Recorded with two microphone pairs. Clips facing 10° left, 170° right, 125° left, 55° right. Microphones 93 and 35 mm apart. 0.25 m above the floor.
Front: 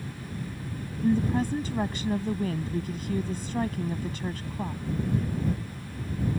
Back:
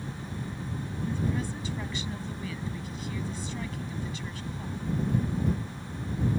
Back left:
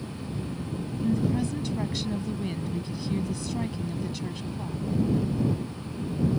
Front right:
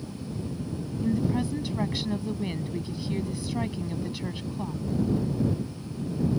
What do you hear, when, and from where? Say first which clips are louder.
1.0 s a woman speaking: front 8 dB, even; 15° left